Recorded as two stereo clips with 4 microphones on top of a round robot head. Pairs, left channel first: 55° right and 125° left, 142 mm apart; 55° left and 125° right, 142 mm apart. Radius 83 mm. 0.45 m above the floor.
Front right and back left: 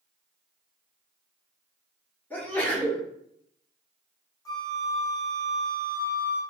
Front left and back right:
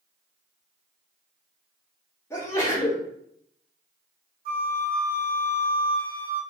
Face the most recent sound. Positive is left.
turn(degrees=-120)